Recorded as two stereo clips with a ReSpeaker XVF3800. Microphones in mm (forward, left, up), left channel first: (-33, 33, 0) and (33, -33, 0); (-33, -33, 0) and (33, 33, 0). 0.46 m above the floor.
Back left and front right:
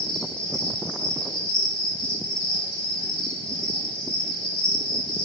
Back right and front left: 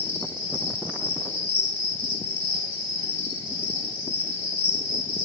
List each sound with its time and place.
0.0 s an insect: 160° left, 0.9 m